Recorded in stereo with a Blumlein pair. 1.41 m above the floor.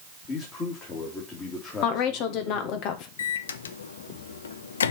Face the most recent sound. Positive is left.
turn(degrees=65)